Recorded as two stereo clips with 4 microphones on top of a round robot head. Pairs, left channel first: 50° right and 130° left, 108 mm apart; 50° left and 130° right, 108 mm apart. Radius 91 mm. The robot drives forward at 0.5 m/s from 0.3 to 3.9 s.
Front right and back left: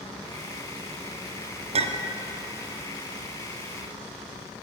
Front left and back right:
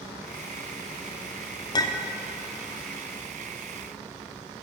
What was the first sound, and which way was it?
A clink, 105° left.